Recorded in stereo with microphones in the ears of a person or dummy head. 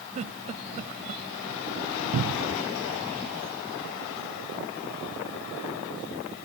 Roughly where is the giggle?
Right.